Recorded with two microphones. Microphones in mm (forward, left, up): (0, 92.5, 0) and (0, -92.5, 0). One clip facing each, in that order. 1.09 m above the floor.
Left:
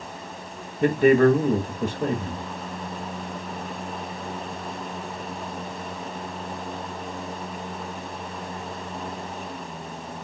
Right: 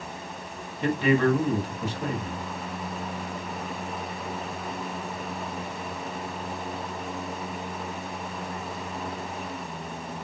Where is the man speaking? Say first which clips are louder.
Left 6 dB; 50° left (ahead or behind), 1.4 m.